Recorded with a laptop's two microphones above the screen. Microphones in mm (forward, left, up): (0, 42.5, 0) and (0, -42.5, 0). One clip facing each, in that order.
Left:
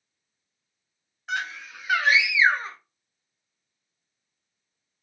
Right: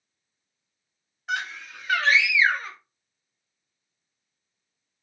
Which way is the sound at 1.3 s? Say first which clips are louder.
Even; centre (ahead or behind).